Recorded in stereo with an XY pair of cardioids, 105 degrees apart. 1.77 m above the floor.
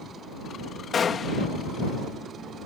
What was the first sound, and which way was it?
A gunshot, 45° left.